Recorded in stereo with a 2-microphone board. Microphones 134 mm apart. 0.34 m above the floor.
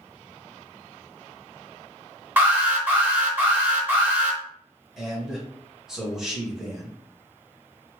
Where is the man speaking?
5° right (ahead or behind), 1.1 m.